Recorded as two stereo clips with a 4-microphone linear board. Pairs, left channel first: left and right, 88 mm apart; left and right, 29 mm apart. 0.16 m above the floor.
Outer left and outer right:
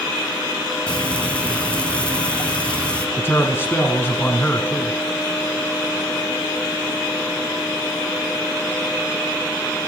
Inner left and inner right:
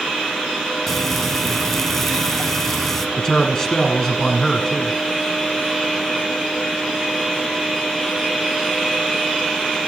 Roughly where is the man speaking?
Left.